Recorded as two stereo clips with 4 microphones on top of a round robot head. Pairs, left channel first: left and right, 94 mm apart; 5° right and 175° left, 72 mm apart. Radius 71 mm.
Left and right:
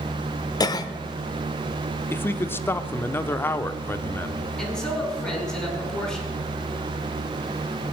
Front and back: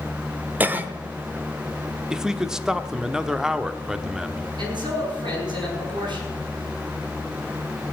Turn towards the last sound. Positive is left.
turn(degrees=170)